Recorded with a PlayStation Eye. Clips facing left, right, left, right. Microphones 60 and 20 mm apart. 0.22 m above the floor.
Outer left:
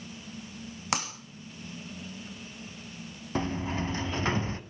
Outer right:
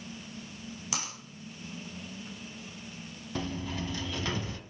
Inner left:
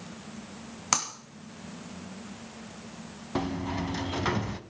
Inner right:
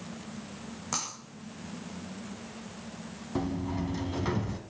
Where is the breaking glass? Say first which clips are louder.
Outer left 7 dB, inner left 6 dB; 60° left (ahead or behind), 2.5 m.